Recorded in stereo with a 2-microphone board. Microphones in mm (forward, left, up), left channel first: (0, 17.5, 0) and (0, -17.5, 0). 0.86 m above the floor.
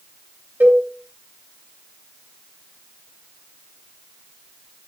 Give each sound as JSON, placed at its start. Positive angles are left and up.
{"t": 0.6, "sound": "a cowbell", "side_deg": -60, "distance_m": 3.5}